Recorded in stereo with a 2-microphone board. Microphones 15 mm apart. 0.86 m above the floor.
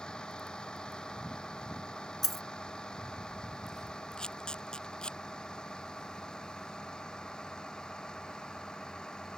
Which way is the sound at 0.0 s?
85° left.